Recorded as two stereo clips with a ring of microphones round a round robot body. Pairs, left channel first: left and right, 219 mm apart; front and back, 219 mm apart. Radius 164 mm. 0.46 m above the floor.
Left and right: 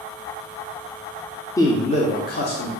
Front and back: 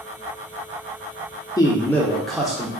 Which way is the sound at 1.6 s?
40° left.